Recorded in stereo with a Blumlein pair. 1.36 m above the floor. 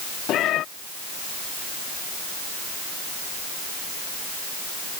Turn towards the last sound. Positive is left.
turn(degrees=35)